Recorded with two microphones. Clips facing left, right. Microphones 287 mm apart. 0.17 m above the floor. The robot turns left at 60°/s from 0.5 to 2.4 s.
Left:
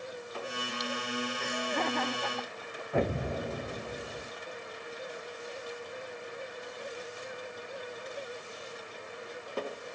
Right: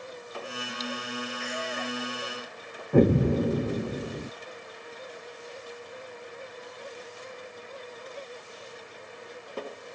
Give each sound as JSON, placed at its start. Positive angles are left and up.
{"t": 1.4, "sound": "laughter", "side_deg": 40}
{"t": 2.9, "sound": "an explosion", "side_deg": -55}